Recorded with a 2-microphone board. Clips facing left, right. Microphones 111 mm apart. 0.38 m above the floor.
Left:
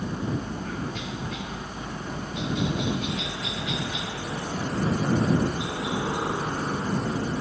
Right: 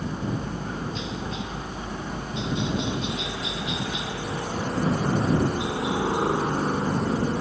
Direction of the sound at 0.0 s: 25° right (ahead or behind).